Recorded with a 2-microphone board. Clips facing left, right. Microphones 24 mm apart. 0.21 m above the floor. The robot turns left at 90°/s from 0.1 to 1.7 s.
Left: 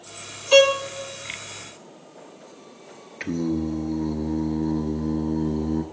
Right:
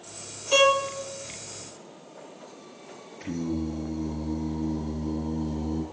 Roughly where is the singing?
Left.